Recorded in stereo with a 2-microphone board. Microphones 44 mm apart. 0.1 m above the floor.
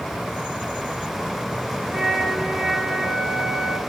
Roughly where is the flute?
Centre.